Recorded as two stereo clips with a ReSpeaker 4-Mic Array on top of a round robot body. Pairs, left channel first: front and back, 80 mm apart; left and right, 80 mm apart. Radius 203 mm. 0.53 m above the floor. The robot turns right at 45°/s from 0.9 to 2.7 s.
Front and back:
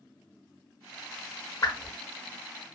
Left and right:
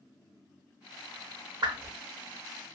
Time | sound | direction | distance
1.6 | a whoosh | 50° right | 0.6 m